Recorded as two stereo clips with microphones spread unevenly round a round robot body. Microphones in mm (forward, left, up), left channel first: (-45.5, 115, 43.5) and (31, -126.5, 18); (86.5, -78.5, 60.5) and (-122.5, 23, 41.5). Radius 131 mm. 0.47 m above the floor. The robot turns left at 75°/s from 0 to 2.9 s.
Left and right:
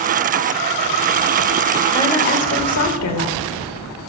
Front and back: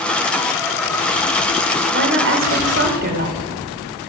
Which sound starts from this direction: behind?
A woman speaking, at 1.9 s.